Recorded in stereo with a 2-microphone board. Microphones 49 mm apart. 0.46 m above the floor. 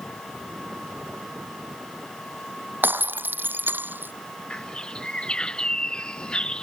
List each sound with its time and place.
2.8 s breaking glass: 40° right (ahead or behind)
4.5 s a bird: 20° left (ahead or behind)